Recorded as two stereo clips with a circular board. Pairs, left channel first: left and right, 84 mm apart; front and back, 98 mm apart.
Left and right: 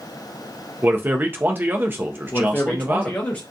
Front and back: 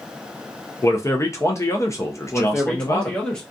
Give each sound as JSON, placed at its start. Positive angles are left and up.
{"t": 0.8, "sound": "a man speaking", "azimuth_deg": -40, "distance_m": 0.5}
{"t": 2.3, "sound": "a man speaking", "azimuth_deg": 65, "distance_m": 0.7}